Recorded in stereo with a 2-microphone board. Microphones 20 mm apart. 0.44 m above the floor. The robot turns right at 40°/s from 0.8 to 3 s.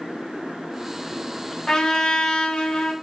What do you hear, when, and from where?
1.7 s a trumpet: 35° left, 0.6 m; by 2.9 s 85° left, 0.6 m